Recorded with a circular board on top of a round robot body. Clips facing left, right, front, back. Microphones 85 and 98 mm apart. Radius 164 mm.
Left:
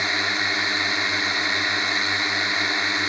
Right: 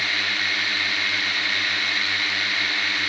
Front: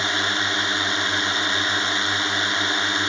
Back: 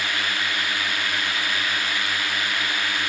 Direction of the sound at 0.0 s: 45° left.